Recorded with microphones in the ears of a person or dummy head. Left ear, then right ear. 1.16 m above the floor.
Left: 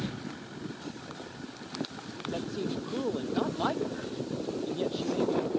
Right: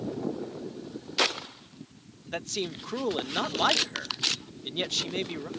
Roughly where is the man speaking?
Right.